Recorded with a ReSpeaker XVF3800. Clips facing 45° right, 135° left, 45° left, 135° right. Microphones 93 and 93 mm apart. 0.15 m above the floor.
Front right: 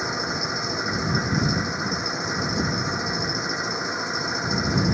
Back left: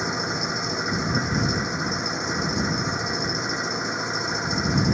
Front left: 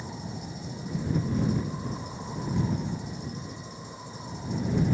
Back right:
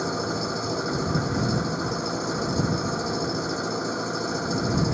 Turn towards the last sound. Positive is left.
turn(degrees=-135)